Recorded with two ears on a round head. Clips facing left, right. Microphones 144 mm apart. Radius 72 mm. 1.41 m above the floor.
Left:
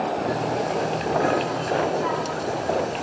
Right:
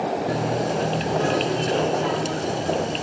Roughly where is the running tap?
Right.